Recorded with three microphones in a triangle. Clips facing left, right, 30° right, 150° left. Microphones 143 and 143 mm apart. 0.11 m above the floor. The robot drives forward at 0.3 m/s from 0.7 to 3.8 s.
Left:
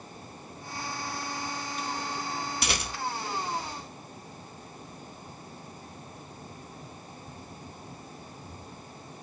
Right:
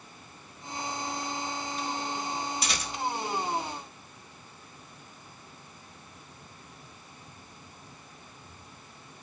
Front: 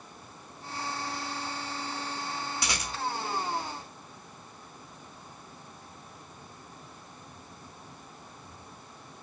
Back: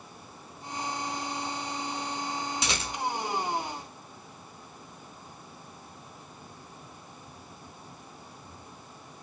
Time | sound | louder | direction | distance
2.6 | a rattle | left 2 dB, back 2 dB | 85° left | 0.8 m